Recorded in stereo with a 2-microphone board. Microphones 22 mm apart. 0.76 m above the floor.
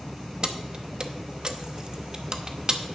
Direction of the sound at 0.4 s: 40° right (ahead or behind).